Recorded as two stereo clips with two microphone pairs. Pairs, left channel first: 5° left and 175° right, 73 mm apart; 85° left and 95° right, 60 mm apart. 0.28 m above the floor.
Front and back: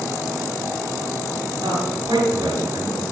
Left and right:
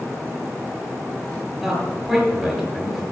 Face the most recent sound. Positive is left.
turn(degrees=180)